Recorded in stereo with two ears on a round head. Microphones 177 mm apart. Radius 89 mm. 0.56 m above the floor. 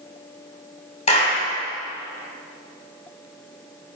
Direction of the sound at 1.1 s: 35° left (ahead or behind).